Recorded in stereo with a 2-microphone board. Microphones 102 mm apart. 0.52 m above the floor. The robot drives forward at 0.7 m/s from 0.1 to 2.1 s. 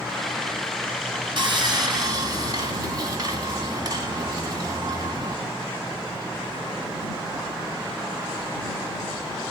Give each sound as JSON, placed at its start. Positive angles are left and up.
{"t": 1.4, "sound": "sawing", "side_deg": -55, "distance_m": 1.7}